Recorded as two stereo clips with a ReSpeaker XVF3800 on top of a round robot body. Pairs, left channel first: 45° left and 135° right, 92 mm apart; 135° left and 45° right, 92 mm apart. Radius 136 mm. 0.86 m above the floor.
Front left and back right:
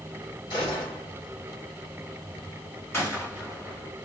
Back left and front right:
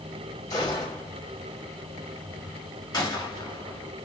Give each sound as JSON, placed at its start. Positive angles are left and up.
{"t": 0.5, "sound": "a gunshot", "azimuth_deg": 80, "distance_m": 1.5}
{"t": 2.9, "sound": "a gunshot", "azimuth_deg": 100, "distance_m": 1.6}